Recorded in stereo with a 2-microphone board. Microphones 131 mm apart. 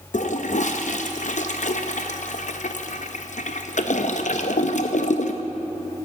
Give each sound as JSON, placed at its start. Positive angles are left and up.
{"t": 0.1, "sound": "a toilet flushing", "side_deg": 70, "distance_m": 0.6}